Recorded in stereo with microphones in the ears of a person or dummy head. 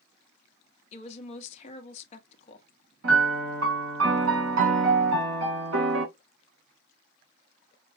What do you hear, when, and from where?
0.9 s a woman speaking: 40° left (ahead or behind), 1.0 m
3.0 s a piano: 85° right, 1.8 m